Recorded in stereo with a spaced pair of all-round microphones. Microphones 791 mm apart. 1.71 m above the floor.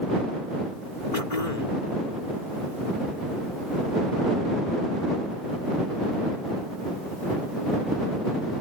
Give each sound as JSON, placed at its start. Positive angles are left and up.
{"t": 1.1, "sound": "throat clearing", "side_deg": 60}